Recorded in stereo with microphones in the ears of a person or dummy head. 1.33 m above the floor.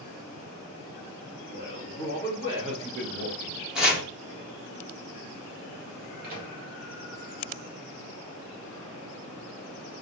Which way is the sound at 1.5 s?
55° right (ahead or behind).